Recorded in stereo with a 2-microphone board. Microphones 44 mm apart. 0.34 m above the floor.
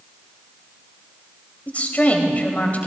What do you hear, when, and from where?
1.7 s a woman speaking: 35° left (ahead or behind), 2.0 m